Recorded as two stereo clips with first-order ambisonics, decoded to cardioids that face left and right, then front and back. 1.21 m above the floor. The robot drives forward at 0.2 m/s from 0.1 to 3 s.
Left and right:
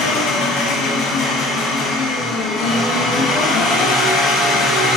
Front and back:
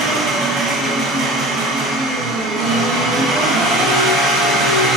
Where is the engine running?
125° left, 0.8 m; by 5.0 s 145° left, 1.2 m.